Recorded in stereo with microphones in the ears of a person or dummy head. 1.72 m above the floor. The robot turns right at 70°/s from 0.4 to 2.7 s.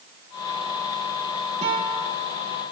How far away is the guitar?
About 2 m.